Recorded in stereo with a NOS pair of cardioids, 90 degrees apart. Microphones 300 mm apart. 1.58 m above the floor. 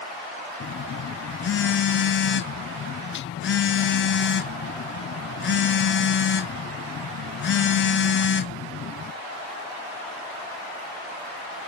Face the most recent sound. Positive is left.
turn(degrees=40)